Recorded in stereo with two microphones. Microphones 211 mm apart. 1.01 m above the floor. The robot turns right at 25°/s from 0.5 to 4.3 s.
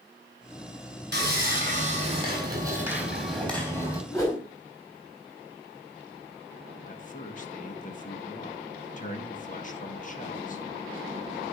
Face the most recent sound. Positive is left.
turn(degrees=40)  # may be behind; listen again after turning